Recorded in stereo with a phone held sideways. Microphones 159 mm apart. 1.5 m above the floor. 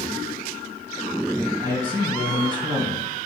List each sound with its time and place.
1.6 s a man speaking: 30° right (ahead or behind), 1.7 m